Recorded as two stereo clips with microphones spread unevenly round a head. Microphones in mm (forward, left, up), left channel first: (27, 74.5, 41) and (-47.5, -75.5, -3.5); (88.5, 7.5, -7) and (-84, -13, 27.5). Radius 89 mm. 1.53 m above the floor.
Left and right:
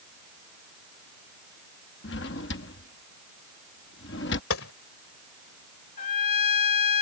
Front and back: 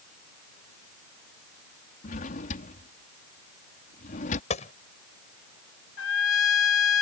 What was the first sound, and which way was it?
A drawer, 60° left.